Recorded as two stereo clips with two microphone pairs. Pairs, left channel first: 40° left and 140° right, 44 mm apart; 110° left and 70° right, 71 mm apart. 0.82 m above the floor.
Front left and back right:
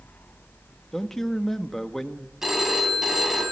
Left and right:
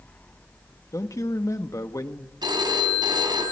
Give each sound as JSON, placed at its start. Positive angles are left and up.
{"t": 0.9, "sound": "a man speaking", "azimuth_deg": 120, "distance_m": 1.4}
{"t": 2.4, "sound": "a phone ringing", "azimuth_deg": -60, "distance_m": 4.0}